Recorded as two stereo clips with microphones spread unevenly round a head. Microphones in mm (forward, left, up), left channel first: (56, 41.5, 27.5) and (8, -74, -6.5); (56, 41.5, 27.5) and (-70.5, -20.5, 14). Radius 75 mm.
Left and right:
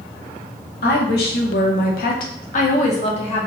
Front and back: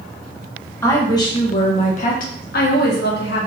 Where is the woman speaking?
100° left, 1.3 m; by 3.5 s 20° left, 1.5 m.